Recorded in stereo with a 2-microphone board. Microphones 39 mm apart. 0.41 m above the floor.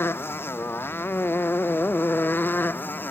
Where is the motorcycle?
80° left; by 3.1 s 60° left (ahead or behind).